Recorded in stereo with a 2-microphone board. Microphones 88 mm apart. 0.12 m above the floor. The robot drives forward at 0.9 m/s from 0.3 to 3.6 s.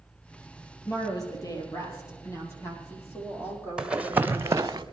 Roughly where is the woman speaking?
Left.